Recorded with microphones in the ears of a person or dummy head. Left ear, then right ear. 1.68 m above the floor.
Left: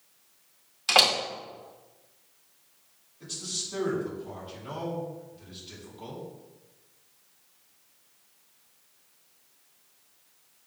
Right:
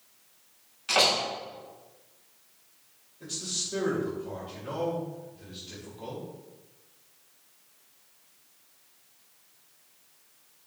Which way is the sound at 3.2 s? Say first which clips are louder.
Right 1 dB; 10° left (ahead or behind).